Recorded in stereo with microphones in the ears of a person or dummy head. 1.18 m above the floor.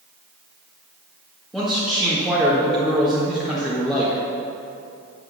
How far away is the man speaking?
About 1.5 m.